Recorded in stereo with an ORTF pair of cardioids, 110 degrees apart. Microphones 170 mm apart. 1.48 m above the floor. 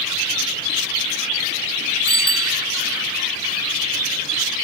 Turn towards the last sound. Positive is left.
turn(degrees=35)